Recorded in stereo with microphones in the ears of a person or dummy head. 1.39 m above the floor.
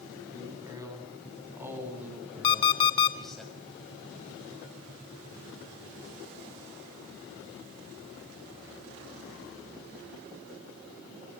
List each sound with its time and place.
0.3 s a man speaking: 20° right (ahead or behind), 9 m; by 3.4 s 5° left (ahead or behind), 7 m
2.4 s an alarm clock: 30° left (ahead or behind), 1.3 m